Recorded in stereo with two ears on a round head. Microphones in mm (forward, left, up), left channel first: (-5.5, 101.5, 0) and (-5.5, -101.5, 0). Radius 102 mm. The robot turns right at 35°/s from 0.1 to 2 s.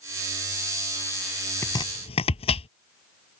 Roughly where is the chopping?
Centre.